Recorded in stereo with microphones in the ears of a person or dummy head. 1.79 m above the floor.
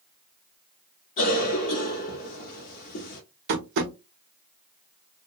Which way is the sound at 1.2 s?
45° left (ahead or behind).